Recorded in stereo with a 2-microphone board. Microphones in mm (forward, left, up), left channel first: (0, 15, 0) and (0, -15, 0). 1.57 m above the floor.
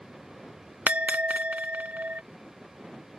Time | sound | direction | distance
0.9 | a bell | 55° right (ahead or behind) | ?